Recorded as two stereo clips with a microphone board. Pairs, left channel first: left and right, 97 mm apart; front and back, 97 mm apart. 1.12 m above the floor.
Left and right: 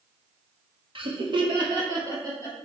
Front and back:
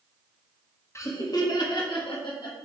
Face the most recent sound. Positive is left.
turn(degrees=-35)